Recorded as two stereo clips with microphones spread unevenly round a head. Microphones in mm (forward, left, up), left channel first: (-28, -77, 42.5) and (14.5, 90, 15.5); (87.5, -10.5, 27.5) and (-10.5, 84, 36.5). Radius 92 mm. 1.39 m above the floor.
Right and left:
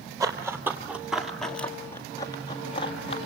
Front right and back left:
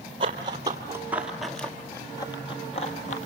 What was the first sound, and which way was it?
Running footsteps, 150° left.